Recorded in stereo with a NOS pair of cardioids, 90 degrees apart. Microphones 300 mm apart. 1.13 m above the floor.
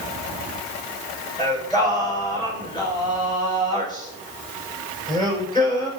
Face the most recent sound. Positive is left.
turn(degrees=15)